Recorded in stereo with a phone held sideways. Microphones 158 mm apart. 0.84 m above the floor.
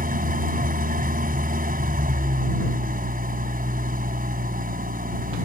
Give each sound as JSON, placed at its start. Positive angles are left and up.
{"t": 0.0, "sound": "an engine running", "side_deg": -65}